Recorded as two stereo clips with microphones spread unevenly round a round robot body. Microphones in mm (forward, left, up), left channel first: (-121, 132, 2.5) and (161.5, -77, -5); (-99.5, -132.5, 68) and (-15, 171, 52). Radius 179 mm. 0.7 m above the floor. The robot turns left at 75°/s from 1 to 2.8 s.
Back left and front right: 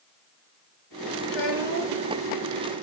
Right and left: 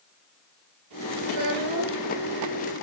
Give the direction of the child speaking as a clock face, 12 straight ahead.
10 o'clock.